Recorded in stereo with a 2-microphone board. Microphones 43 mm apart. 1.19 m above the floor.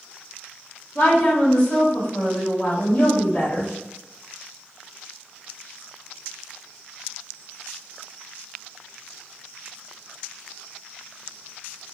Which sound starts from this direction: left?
A woman speaking, at 0.9 s.